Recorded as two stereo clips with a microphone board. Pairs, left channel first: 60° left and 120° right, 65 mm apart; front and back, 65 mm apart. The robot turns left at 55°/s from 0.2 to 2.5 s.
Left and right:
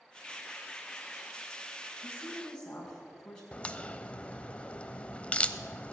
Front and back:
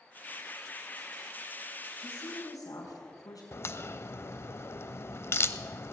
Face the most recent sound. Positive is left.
turn(degrees=0)